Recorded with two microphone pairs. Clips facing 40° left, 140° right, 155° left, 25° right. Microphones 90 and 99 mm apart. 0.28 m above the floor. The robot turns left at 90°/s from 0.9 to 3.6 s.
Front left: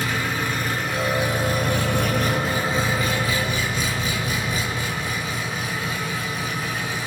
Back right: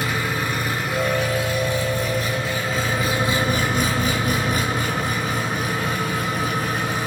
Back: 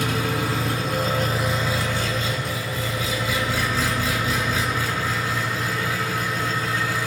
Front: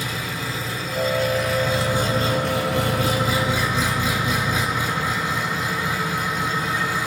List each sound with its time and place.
0.0 s an engine running: 140° left, 3.5 m; by 7.1 s 100° right, 3.5 m